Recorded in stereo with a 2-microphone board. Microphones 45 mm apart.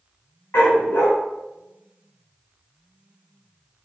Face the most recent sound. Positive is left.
turn(degrees=60)  # may be behind; listen again after turning